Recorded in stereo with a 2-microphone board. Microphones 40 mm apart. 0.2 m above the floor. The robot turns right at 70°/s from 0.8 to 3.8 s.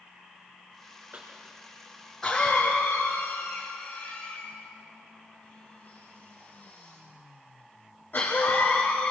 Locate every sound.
1.1 s a cough: 60° right (ahead or behind), 3 m; by 9.1 s 55° left (ahead or behind), 3 m